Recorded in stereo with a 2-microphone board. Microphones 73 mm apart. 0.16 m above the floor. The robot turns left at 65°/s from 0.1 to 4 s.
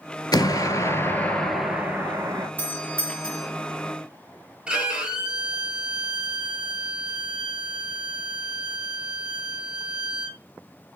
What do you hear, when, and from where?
0.3 s an explosion: 80° left, 0.6 m; by 2.5 s 60° right, 0.6 m
2.6 s a doorbell: 60° left, 1.6 m; by 3.5 s 5° left, 1.6 m
4.7 s a violin: 15° right (ahead or behind), 0.7 m